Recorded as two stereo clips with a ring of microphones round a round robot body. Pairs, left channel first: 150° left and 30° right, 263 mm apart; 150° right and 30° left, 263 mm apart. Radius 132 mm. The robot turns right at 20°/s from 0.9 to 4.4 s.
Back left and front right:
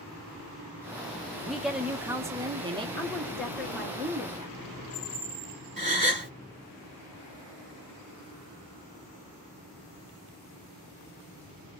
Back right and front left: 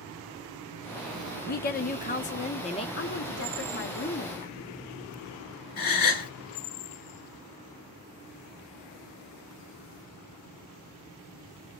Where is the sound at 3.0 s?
130° right, 0.9 m; by 4.6 s 105° right, 0.9 m.